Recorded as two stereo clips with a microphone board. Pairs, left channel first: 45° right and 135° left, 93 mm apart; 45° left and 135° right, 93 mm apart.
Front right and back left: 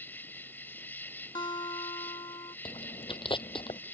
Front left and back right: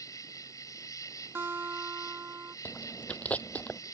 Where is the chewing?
30° right.